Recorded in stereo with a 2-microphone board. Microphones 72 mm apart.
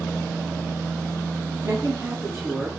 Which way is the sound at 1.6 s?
40° right (ahead or behind).